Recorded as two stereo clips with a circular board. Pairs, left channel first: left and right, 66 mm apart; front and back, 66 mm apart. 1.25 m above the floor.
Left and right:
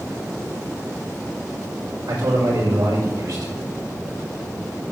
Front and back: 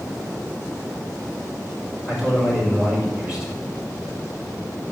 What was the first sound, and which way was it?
A man speaking, 100° right.